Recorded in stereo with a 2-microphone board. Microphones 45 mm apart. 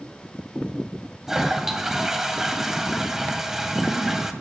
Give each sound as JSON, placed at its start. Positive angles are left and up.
{"t": 1.3, "sound": "a toilet flushing", "side_deg": -10, "distance_m": 1.7}